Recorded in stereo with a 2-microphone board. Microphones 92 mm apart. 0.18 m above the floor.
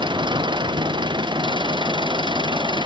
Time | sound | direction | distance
0.0 | an engine running | 60° right (ahead or behind) | ?